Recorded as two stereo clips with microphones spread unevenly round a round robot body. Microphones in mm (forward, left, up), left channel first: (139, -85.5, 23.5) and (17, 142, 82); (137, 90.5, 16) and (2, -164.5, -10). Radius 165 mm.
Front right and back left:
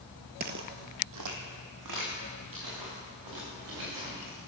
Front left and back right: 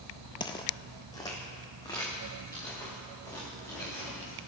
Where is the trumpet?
I don't hear a trumpet.